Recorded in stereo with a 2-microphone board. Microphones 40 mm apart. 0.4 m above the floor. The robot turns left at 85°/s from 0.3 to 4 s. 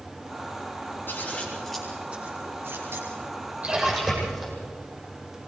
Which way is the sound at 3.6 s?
145° right.